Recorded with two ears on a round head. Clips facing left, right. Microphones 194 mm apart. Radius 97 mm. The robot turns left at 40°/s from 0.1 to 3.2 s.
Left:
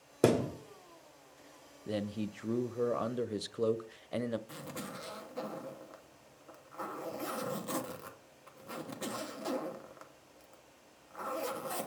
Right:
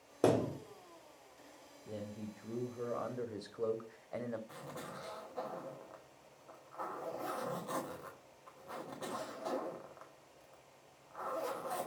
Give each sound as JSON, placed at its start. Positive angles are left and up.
{"t": 0.2, "sound": "a thud", "side_deg": 30, "distance_m": 1.1}
{"t": 1.9, "sound": "a man speaking", "azimuth_deg": 95, "distance_m": 0.5}
{"t": 4.5, "sound": "a zipper", "side_deg": 35, "distance_m": 1.2}